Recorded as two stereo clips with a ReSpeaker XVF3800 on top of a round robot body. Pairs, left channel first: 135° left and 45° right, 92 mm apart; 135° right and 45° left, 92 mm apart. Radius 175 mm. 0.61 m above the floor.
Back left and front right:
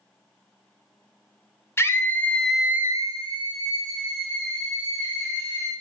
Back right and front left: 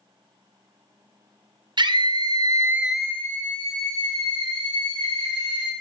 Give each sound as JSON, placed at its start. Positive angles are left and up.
{"t": 1.8, "sound": "a scream", "azimuth_deg": 75, "distance_m": 1.1}